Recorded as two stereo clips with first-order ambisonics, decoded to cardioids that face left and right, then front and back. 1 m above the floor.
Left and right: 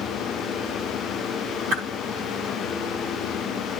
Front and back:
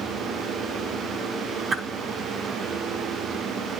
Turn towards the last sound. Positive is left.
turn(degrees=-110)